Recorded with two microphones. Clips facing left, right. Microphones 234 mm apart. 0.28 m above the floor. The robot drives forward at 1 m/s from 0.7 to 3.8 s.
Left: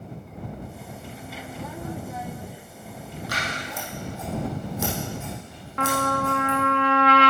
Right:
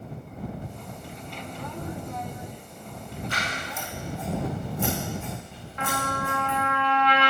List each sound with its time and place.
3.3 s scissors: 75° left (ahead or behind), 4.5 m; by 6.6 s 80° left, 4.5 m
5.8 s a trumpet: 70° left (ahead or behind), 1.0 m